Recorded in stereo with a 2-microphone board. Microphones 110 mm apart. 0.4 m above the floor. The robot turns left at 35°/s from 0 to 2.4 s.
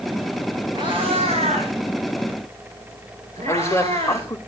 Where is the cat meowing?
45° right (ahead or behind), 7 m; by 4.3 s 80° right, 7 m.